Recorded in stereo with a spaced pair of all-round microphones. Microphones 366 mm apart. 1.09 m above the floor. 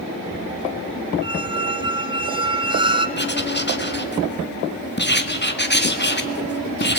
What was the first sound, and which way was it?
A squeak, 15° right (ahead or behind).